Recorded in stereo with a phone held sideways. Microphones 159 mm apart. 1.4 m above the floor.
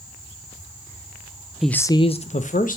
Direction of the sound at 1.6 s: Centre (ahead or behind).